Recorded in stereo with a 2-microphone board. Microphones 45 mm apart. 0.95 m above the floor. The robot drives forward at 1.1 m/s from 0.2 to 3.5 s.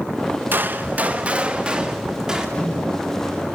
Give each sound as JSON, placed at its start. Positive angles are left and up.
{"t": 0.5, "sound": "a gunshot", "side_deg": -50, "distance_m": 0.8}
{"t": 2.5, "sound": "a microwave", "side_deg": 25, "distance_m": 7.5}